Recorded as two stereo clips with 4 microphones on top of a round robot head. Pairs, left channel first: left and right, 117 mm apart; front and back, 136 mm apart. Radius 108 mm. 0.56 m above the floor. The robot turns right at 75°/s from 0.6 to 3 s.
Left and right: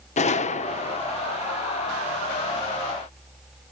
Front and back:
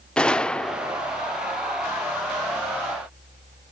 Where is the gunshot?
80° left, 0.9 m; by 1.0 s 110° left, 0.9 m.